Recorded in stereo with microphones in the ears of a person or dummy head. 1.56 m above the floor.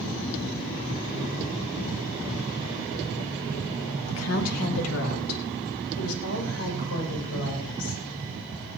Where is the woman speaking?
80° left, 2.5 m; by 8.0 s 85° left, 7 m.